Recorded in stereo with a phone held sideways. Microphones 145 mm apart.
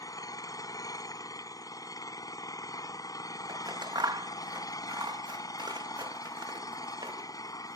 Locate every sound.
0.0 s an engine running: 25° left (ahead or behind)
3.5 s scissors: 30° right (ahead or behind)